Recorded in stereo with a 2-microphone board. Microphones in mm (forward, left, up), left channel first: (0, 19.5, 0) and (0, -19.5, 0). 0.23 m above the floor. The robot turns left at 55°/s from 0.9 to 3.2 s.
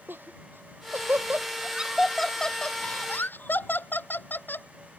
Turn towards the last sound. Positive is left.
turn(degrees=55)  # may be behind; listen again after turning